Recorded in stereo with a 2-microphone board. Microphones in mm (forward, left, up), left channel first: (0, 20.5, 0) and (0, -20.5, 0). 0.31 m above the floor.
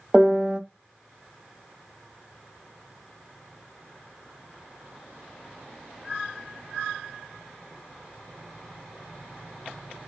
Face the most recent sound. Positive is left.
turn(degrees=-25)  # may be behind; listen again after turning